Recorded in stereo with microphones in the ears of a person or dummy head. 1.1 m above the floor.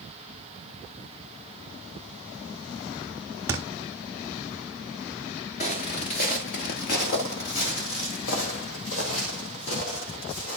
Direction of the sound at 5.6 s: 25° left (ahead or behind).